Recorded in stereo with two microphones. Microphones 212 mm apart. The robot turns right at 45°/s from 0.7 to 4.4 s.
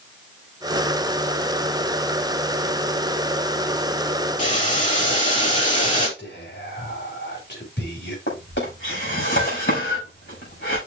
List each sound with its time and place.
4.4 s boiling: 40° left (ahead or behind), 2.5 m
6.2 s whispering: 60° left (ahead or behind), 5 m
8.3 s a drawer: 60° left (ahead or behind), 5 m